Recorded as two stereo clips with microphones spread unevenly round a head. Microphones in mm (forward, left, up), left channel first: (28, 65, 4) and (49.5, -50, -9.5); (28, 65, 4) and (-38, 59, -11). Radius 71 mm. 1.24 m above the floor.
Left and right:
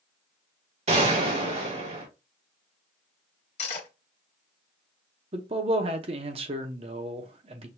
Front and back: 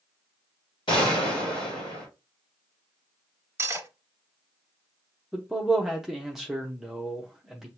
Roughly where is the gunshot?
Ahead right.